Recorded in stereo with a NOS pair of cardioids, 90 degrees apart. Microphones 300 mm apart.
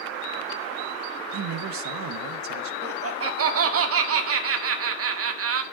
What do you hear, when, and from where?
1.3 s a man speaking: 65° right, 1.0 m
2.8 s laughter: 50° right, 1.9 m